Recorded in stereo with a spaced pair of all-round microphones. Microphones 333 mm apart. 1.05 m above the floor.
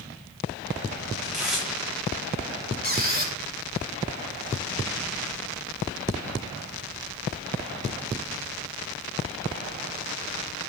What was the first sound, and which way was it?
Tearing paper, centre (ahead or behind).